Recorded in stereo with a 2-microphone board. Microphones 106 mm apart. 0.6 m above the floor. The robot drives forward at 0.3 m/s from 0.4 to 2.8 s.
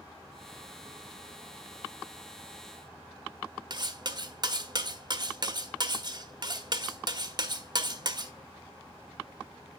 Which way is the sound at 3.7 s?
40° right (ahead or behind).